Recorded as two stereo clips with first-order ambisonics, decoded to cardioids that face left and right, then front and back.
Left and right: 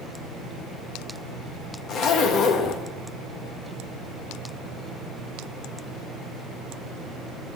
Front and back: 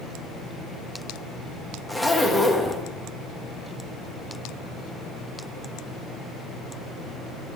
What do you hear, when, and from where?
1.9 s a zipper: 80° left, 1.1 m